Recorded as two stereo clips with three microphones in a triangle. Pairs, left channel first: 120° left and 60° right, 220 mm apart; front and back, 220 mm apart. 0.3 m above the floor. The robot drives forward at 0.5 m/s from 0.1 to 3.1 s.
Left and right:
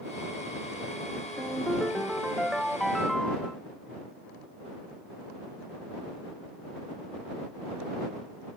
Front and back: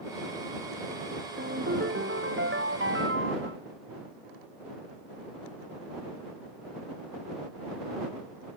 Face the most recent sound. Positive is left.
turn(degrees=-150)